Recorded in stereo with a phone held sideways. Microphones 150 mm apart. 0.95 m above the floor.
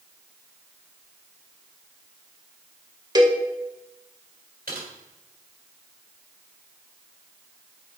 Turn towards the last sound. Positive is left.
turn(degrees=-80)